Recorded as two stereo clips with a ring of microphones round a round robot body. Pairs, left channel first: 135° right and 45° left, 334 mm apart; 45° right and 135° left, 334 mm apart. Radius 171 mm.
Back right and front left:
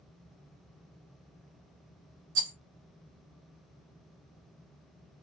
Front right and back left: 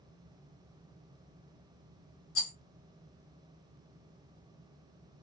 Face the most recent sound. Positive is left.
turn(degrees=5)